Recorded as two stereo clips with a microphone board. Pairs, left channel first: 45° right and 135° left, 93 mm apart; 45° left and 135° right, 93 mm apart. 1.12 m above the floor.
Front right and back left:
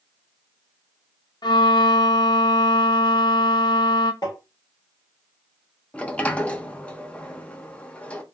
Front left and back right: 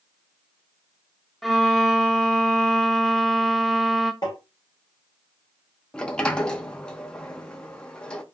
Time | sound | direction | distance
1.4 | a violin | 45° right | 0.5 m
4.2 | tapping | straight ahead | 1.7 m
5.9 | a sliding door | 15° right | 0.5 m